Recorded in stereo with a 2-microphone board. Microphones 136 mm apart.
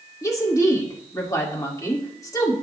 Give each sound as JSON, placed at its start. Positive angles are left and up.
{"t": 0.2, "sound": "a woman speaking", "side_deg": 25, "distance_m": 2.0}